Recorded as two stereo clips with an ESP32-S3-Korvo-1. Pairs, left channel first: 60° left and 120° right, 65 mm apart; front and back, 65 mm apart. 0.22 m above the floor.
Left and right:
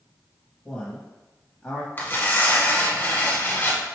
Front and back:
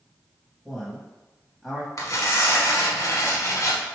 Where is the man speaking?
95° left, 1.0 m.